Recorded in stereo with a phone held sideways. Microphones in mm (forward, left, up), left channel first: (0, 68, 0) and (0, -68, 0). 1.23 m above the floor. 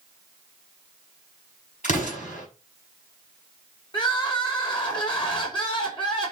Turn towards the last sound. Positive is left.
turn(degrees=40)  # may be behind; listen again after turning